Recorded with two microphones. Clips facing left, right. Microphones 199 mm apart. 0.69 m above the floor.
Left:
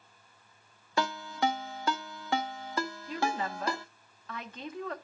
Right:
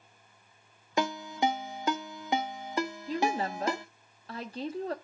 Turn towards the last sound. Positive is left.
turn(degrees=-35)  # may be behind; listen again after turning